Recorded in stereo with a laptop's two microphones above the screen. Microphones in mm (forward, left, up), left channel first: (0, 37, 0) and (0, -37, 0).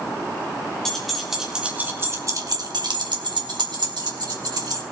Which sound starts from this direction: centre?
Keys jangling, at 0.8 s.